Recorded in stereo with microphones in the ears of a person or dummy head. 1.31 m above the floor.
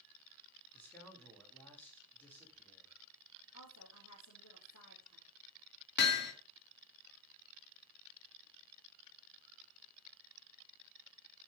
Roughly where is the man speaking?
Centre.